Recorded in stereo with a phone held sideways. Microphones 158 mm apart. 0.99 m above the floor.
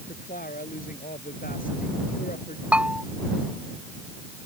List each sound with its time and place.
0.1 s a woman speaking: 60° left (ahead or behind)
2.7 s a bell: 10° right (ahead or behind)